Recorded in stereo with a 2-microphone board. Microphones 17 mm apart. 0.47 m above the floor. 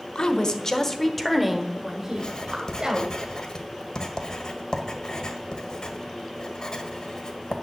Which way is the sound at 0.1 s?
45° left (ahead or behind).